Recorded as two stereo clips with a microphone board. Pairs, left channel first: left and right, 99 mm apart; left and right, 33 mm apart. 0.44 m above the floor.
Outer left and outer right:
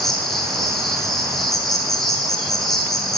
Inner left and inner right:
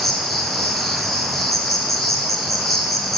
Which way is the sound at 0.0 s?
5° left (ahead or behind).